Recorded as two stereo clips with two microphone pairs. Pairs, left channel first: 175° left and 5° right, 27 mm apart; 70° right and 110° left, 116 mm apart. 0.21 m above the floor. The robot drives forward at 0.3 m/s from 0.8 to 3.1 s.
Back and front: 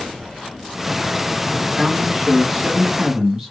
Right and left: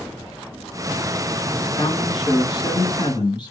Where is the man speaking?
70° right, 1.8 m; by 3.5 s 90° right, 1.7 m.